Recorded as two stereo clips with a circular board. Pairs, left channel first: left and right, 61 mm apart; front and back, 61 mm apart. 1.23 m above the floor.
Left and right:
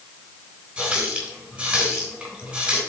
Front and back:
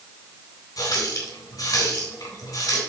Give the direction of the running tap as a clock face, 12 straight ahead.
12 o'clock.